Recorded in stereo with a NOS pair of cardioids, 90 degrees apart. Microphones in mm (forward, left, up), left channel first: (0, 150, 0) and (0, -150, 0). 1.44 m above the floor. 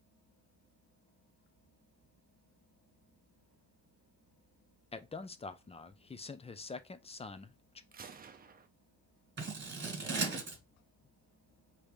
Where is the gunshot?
30° right, 0.7 m.